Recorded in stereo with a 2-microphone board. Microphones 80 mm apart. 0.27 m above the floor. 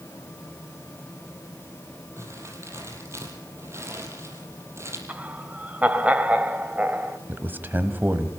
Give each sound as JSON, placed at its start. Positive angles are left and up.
{"t": 2.2, "sound": "crumpling", "side_deg": -35, "distance_m": 5.5}
{"t": 5.1, "sound": "laughter", "side_deg": -15, "distance_m": 1.6}
{"t": 7.3, "sound": "a man speaking", "side_deg": -25, "distance_m": 1.7}